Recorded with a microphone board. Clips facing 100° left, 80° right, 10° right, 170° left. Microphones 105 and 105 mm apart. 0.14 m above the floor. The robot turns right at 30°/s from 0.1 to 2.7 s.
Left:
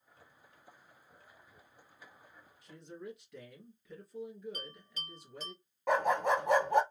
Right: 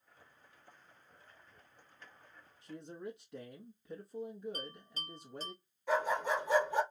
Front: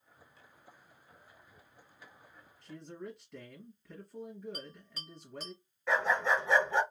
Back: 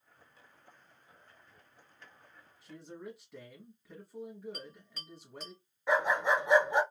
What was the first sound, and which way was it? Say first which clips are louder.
A man speaking: right 2 dB, front 1 dB; 110° right.